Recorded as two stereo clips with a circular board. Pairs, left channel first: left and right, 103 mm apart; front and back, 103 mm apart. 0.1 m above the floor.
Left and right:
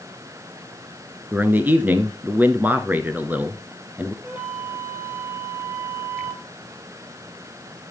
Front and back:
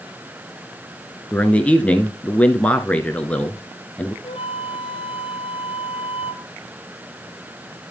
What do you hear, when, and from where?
1.3 s a man speaking: 55° right, 1.2 m
4.2 s a flute: 20° right, 2 m